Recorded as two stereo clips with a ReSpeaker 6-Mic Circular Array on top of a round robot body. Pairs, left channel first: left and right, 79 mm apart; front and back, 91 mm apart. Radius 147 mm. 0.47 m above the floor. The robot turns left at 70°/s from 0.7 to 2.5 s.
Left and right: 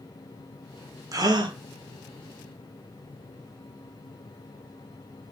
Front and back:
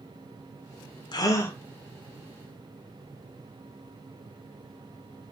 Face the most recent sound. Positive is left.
turn(degrees=-140)